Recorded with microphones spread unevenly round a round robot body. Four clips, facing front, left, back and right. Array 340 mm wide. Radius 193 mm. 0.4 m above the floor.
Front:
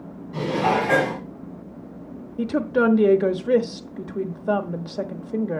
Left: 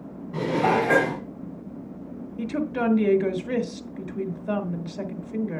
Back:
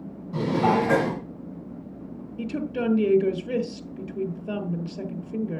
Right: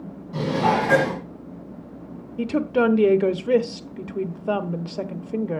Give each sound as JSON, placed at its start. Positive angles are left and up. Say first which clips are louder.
{"t": 0.3, "sound": "dishes clattering", "louder": "right 1 dB, even", "azimuth_deg": -150, "distance_m": 3.5}
{"t": 2.4, "sound": "a woman speaking", "louder": "right 6 dB, front 8 dB", "azimuth_deg": -35, "distance_m": 1.2}